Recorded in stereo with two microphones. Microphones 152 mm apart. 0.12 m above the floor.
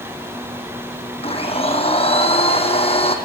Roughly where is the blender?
Left.